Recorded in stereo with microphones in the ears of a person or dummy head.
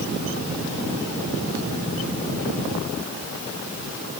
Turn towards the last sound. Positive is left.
No sound to turn to.